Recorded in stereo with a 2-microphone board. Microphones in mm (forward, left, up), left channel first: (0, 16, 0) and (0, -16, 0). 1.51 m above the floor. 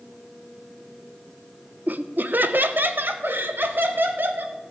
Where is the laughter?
55° right (ahead or behind), 0.7 m; by 4.6 s 80° right, 2 m.